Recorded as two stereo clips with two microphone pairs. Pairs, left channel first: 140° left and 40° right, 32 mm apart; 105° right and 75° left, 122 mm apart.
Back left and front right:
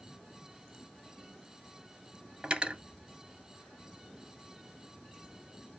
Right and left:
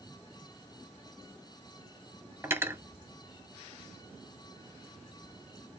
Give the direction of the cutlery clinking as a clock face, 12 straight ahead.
12 o'clock.